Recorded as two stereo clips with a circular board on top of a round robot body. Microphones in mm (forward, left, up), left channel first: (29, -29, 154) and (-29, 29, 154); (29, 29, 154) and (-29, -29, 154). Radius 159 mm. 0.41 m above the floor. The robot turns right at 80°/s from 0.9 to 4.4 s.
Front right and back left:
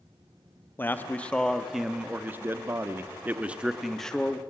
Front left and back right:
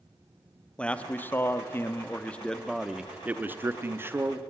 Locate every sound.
0.8 s a man speaking: 15° right, 1.3 m; by 4.4 s 95° right, 1.3 m